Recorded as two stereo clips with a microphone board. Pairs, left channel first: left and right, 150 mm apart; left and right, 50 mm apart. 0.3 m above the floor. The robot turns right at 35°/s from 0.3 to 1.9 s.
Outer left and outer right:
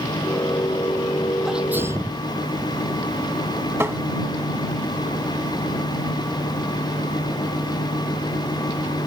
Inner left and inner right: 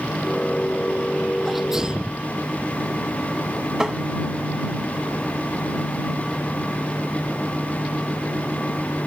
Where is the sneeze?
Centre (ahead or behind); by 2.3 s 15° right (ahead or behind).